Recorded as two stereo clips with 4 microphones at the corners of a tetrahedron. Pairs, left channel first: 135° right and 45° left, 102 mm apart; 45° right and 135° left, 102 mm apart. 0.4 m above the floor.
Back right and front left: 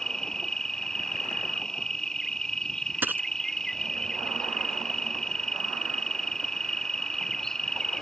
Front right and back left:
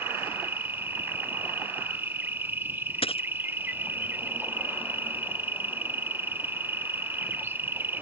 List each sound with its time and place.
0.0 s an insect: 150° left
3.0 s a dropped coin: 25° right